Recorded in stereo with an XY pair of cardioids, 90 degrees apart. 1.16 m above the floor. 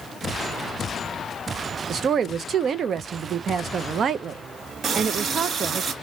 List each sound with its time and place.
1.9 s a woman speaking: 60° right, 0.5 m
4.8 s a running tap: 65° right, 1.0 m